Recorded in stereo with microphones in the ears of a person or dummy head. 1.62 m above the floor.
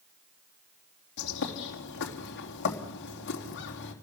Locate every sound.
1.2 s a bird: 65° left (ahead or behind), 3.5 m